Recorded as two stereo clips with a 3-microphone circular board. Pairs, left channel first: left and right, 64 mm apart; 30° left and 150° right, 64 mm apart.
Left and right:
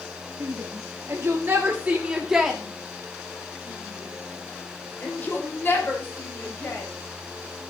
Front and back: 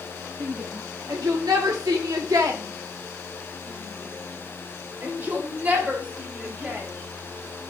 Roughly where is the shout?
Behind right.